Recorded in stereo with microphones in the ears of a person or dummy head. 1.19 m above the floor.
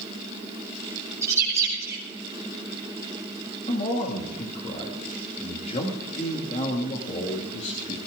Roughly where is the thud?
No thud in this recording.